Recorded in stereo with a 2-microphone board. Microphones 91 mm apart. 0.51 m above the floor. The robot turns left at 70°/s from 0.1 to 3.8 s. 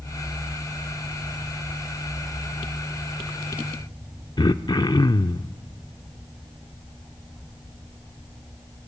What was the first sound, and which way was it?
Throat clearing, 50° left (ahead or behind).